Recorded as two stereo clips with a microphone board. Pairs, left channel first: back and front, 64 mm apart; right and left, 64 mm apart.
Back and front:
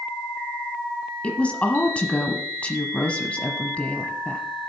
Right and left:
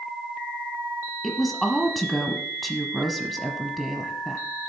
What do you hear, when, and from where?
1.2 s a woman speaking: 175° right, 1.0 m